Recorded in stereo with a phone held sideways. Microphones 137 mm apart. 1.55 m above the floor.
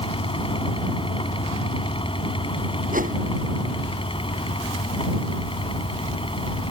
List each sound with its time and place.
0.0 s a fan: 40° left (ahead or behind)
2.9 s a whoosh: 75° right (ahead or behind)